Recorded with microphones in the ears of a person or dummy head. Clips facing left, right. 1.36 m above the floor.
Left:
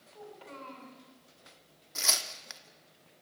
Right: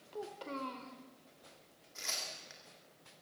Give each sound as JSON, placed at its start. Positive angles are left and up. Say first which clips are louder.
{"t": 0.1, "sound": "a child speaking", "louder": "right 5 dB", "side_deg": -55, "distance_m": 3.0}
{"t": 1.9, "sound": "tearing paper", "louder": "left 7 dB", "side_deg": 70, "distance_m": 1.9}